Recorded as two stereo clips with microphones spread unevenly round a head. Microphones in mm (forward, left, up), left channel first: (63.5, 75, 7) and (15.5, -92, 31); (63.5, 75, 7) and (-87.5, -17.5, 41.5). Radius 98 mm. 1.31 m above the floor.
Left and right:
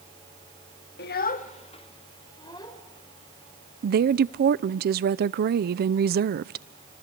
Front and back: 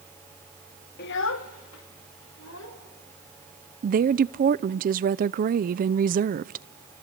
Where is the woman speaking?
110° right, 0.5 m.